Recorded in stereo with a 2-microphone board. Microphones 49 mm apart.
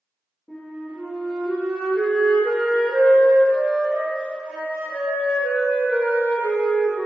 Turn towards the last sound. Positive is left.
turn(degrees=20)  # may be behind; listen again after turning